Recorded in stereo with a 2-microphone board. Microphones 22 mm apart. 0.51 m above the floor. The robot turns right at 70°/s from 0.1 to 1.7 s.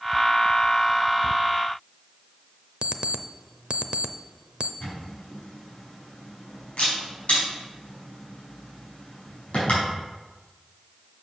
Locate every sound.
2.8 s an alarm clock: 50° right (ahead or behind), 0.5 m
4.8 s a camera shutter: 75° left (ahead or behind), 4.5 m